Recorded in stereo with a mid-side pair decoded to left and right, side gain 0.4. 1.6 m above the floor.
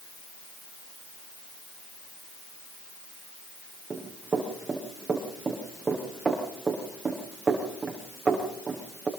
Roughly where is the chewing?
I don't hear chewing.